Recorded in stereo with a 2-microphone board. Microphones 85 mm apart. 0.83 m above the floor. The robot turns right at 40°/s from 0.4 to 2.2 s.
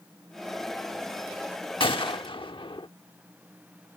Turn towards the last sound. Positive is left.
turn(degrees=85)